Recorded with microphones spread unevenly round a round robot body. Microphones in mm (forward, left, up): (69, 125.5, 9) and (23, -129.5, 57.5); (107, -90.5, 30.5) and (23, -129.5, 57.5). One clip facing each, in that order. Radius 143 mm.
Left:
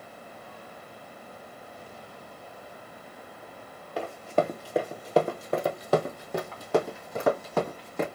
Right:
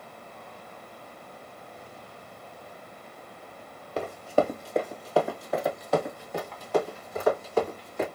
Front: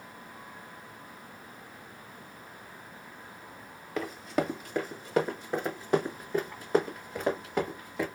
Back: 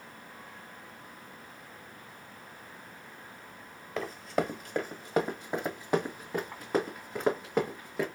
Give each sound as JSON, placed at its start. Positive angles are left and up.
{"t": 4.0, "sound": "running footsteps", "azimuth_deg": -90, "distance_m": 1.0}